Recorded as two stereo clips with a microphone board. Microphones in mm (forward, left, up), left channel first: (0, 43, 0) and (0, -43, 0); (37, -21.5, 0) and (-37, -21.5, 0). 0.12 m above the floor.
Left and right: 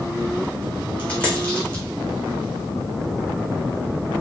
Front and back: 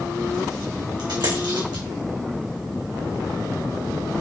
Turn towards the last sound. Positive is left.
turn(degrees=165)